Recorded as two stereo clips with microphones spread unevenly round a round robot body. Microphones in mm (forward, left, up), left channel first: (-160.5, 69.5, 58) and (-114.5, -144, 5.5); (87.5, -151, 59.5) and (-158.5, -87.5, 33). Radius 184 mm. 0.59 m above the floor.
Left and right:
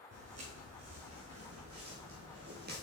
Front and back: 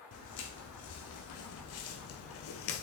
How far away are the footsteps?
About 2 m.